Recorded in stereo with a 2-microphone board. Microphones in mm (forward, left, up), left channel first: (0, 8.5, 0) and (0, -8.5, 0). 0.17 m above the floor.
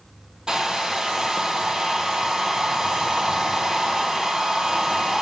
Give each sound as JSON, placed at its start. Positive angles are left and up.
{"t": 0.5, "sound": "a hair dryer", "side_deg": -50, "distance_m": 0.9}